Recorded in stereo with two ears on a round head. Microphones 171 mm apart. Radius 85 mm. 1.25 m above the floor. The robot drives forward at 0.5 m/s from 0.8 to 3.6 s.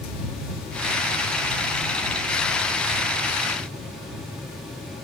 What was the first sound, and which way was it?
Only background noise.